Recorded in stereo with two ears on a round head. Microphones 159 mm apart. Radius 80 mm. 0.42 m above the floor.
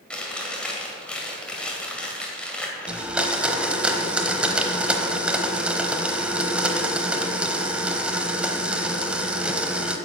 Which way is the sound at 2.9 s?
5° right (ahead or behind).